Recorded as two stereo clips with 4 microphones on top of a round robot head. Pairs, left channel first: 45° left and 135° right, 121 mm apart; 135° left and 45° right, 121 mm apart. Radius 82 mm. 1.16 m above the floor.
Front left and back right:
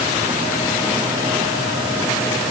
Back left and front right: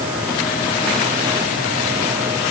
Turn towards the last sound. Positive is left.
No sound to turn to.